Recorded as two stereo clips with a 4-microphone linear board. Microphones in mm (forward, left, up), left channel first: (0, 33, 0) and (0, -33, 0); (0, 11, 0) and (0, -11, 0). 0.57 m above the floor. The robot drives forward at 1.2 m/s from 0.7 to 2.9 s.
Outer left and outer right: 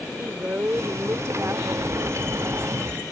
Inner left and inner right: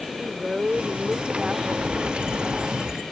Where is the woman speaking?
35° right (ahead or behind); by 1.6 s 50° right (ahead or behind).